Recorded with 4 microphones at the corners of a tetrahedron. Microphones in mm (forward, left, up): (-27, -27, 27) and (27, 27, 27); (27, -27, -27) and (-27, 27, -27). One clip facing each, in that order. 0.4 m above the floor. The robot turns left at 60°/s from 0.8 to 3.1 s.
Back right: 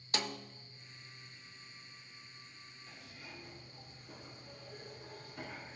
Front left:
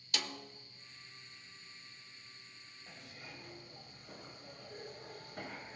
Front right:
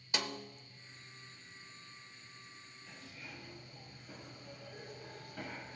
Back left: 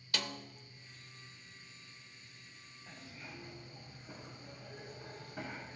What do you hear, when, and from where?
0.1 s a snare drum: 100° right, 0.7 m
2.9 s a zipper: 85° left, 2.5 m; by 5.8 s 70° left, 2.5 m